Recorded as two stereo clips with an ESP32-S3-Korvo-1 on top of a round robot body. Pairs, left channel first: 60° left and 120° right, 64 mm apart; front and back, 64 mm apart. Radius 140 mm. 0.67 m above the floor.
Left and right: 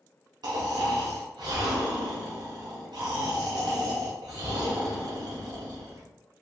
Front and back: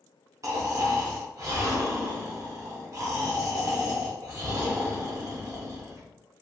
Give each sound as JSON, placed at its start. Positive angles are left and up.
{"t": 0.4, "sound": "snoring", "azimuth_deg": -135, "distance_m": 0.5}